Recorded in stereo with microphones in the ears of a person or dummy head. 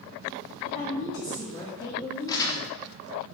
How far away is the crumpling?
About 0.6 m.